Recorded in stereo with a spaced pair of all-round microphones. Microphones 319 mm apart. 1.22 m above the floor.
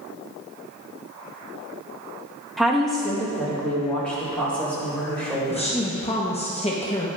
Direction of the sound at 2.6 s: Centre (ahead or behind).